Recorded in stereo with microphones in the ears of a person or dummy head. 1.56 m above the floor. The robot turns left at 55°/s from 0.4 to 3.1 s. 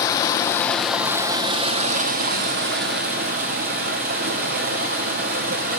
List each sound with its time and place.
0.0 s running water: 30° left, 0.7 m; by 5.8 s 120° right, 0.7 m